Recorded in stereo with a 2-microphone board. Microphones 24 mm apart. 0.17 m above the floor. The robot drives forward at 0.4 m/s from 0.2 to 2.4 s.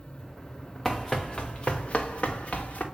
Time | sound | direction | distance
0.8 | running footsteps | 10° left (ahead or behind) | 0.9 m